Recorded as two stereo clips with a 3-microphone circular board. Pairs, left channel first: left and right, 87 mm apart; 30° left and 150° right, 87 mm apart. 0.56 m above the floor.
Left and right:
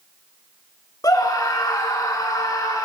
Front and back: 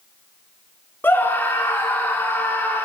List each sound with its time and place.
1.0 s a scream: 85° left, 1.4 m